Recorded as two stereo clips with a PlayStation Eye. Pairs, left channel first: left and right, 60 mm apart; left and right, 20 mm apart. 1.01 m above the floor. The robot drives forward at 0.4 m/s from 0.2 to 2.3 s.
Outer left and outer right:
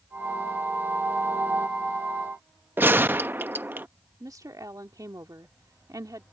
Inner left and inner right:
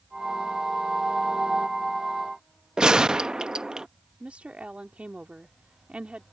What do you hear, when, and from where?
2.8 s a gunshot: 35° right (ahead or behind)
4.2 s a woman speaking: 85° right